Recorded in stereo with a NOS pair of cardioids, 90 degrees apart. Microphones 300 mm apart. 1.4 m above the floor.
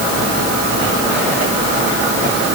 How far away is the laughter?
No laughter in this recording.